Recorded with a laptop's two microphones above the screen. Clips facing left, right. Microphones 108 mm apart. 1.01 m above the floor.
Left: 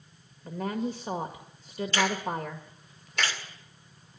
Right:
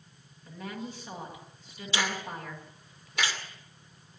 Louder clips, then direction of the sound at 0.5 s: Left 8 dB; 45° left (ahead or behind).